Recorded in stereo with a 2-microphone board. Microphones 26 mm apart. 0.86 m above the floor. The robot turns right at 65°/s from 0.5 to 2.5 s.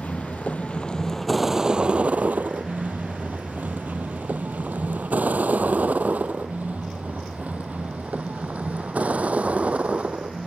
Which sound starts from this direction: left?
A vehicle, at 0.0 s.